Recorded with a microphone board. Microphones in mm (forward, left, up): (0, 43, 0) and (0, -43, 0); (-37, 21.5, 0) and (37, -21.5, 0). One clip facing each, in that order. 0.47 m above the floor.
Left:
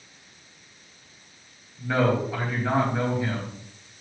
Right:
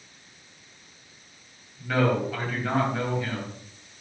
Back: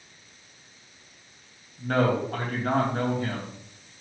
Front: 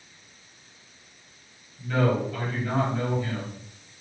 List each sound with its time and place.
1.8 s a man speaking: 165° left, 3 m